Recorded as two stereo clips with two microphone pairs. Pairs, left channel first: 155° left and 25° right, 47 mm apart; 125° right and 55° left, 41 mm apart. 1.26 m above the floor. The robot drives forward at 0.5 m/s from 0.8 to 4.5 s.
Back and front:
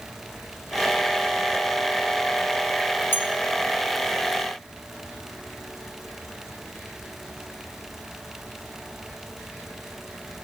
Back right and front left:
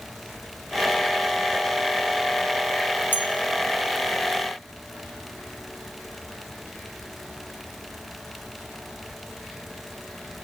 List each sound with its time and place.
3.1 s a bell: 165° right, 1.6 m